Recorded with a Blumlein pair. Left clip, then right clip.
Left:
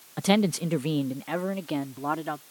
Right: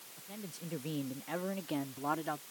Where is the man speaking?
50° left; by 2.4 s 15° left.